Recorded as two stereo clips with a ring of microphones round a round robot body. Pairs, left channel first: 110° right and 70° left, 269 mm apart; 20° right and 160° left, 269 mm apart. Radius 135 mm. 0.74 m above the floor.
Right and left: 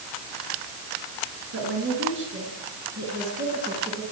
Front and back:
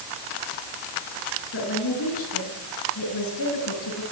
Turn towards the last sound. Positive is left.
turn(degrees=0)